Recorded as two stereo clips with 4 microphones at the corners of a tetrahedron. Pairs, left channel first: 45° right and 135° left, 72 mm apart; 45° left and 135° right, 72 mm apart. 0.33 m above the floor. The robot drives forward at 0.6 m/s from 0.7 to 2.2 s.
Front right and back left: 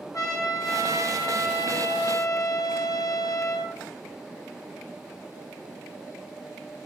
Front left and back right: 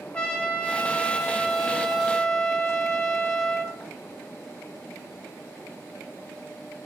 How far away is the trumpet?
About 2.5 m.